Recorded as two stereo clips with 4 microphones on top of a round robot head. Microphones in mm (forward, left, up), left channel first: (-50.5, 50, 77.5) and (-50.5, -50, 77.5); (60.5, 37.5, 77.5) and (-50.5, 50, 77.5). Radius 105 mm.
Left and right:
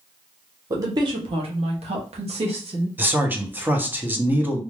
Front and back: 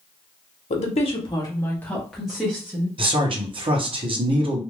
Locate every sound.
0.7 s a woman speaking: 30° right, 0.9 m; by 2.9 s 110° right, 1.4 m
3.0 s a man speaking: 160° right, 1.0 m